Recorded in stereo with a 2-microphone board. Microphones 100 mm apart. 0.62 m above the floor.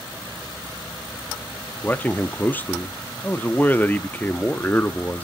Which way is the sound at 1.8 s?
20° left (ahead or behind).